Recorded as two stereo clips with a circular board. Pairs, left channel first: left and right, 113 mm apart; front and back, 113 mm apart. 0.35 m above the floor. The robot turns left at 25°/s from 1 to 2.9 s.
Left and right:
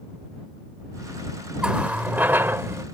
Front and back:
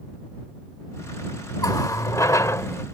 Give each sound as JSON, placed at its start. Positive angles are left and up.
{"t": 1.6, "sound": "a running tap", "azimuth_deg": -15}